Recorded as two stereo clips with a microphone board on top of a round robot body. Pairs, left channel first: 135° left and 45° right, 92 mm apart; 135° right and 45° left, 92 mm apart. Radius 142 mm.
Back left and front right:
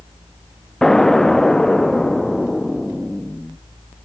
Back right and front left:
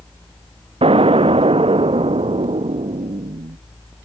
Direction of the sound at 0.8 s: 50° left.